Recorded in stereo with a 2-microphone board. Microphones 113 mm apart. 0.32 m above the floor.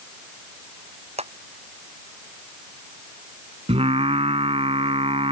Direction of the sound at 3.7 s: 65° right (ahead or behind).